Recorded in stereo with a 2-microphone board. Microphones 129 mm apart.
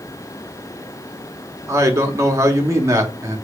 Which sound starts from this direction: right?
A man speaking, at 1.7 s.